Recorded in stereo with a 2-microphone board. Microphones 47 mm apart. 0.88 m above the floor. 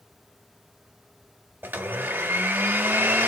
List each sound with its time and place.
1.6 s a blender: 55° right (ahead or behind), 1.6 m